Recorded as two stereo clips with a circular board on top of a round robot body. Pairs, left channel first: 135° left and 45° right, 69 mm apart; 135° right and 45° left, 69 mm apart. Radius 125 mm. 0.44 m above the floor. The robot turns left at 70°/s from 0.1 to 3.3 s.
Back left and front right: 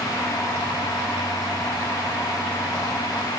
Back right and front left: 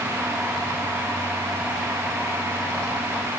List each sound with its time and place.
Only background noise.